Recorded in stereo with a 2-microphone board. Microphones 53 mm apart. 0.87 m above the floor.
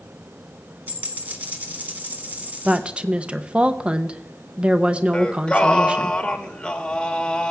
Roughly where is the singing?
Centre.